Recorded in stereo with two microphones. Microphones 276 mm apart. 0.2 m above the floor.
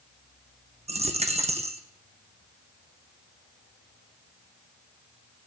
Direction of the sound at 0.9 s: 25° right (ahead or behind).